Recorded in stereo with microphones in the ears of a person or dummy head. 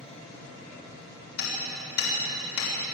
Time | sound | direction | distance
1.4 | hammering | 75° left (ahead or behind) | 6.5 m